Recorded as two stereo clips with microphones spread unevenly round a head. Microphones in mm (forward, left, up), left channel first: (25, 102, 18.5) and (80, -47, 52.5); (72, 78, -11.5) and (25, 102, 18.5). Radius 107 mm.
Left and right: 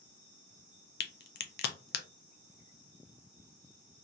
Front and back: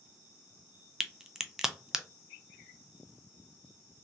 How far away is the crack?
About 0.6 m.